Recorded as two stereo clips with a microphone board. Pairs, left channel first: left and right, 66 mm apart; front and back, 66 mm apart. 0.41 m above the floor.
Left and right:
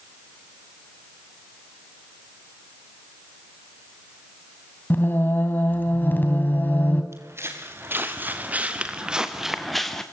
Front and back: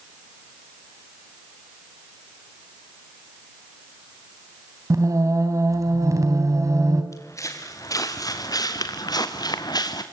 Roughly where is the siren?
No siren in this recording.